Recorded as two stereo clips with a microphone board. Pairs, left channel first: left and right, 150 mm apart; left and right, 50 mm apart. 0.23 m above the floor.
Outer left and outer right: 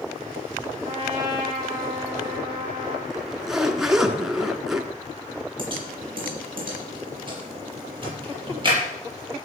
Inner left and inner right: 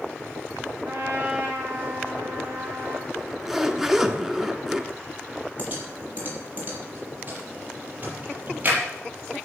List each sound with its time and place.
0.8 s a trumpet: 30° right (ahead or behind), 3.5 m
3.1 s a zipper: 5° right (ahead or behind), 1.2 m
5.6 s typing on a keyboard: 35° right (ahead or behind), 6 m